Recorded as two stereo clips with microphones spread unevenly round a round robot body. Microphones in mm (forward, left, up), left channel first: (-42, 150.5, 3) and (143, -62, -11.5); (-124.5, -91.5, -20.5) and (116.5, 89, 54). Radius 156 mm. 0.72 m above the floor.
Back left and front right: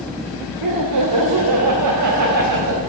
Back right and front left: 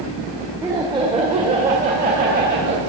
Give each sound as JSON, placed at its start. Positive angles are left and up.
{"t": 0.6, "sound": "laughter", "azimuth_deg": -50, "distance_m": 1.9}